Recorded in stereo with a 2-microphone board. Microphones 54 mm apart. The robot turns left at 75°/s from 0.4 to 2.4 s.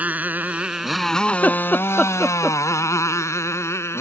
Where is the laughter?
35° left (ahead or behind); by 2.6 s 10° left (ahead or behind).